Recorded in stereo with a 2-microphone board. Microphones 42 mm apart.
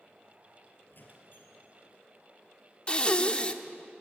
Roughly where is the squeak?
Left.